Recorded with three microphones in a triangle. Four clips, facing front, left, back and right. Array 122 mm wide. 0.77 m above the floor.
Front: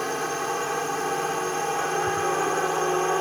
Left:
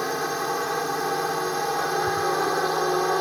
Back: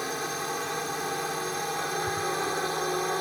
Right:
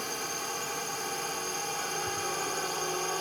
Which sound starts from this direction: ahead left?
A drone, at 0.0 s.